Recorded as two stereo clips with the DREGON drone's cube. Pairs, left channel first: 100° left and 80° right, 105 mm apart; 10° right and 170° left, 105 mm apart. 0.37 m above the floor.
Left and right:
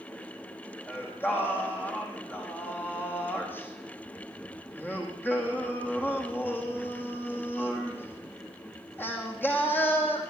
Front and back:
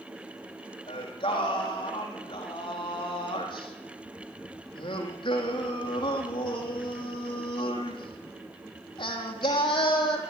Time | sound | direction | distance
0.9 | singing | 30° left | 4.5 m